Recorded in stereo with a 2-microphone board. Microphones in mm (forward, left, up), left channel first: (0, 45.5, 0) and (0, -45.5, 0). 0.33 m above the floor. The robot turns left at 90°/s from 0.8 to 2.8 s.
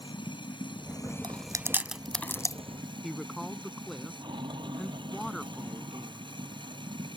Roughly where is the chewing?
Right.